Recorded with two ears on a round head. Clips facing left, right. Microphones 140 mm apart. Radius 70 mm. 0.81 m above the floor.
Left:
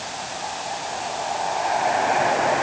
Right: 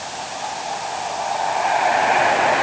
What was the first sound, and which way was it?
Only background noise.